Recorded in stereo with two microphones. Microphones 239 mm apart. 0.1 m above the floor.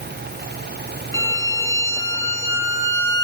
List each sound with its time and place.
1.1 s a violin: 15° left (ahead or behind), 1.6 m